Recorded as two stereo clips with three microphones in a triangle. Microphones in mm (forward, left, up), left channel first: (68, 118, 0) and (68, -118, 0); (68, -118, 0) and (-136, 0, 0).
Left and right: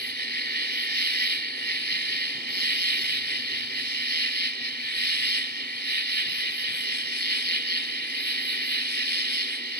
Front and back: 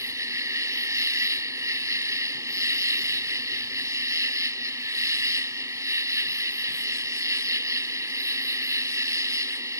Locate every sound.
0.0 s an insect: 135° right